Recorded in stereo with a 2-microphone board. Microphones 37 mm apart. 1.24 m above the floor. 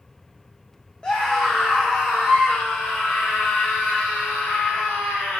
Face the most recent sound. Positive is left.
turn(degrees=80)